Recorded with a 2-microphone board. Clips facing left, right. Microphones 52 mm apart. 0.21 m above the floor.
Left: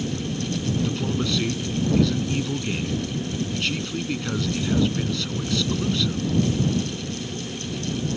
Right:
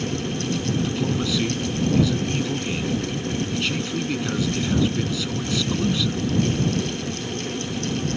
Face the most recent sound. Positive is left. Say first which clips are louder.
# right 1 dB
turn(degrees=-5)  # may be behind; listen again after turning